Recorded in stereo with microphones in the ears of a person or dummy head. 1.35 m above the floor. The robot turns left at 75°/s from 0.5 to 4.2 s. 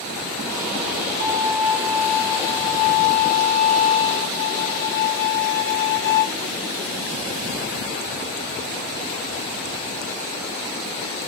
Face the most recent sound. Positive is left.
turn(degrees=15)